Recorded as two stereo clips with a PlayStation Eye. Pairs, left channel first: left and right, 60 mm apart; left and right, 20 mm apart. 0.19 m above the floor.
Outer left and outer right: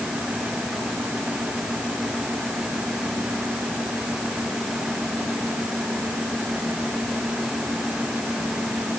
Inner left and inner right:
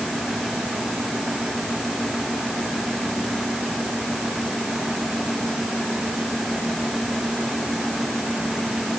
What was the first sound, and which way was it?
Only background noise.